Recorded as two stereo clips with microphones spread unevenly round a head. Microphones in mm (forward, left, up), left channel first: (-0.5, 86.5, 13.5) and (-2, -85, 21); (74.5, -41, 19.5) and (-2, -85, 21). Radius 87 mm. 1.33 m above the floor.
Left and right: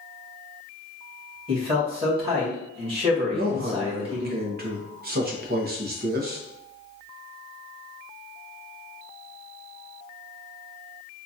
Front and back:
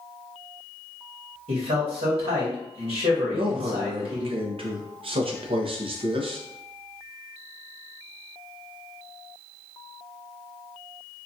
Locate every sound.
1.5 s a man speaking: 150° right, 1.9 m
3.3 s a man speaking: 130° right, 0.8 m